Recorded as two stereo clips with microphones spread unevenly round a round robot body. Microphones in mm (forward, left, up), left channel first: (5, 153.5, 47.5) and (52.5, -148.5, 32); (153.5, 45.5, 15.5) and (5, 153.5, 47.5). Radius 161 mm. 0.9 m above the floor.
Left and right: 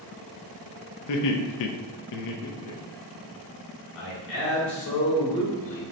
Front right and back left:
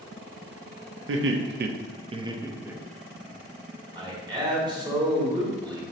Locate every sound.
1.1 s laughter: 135° left, 0.6 m; by 3.2 s 50° left, 1.0 m
4.0 s a man speaking: 75° left, 1.6 m